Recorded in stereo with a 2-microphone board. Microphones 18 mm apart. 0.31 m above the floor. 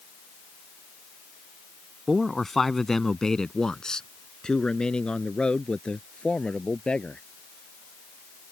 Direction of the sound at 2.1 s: 5° left (ahead or behind).